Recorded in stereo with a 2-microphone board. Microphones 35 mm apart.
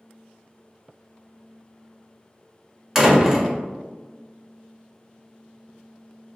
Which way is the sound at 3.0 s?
15° right (ahead or behind).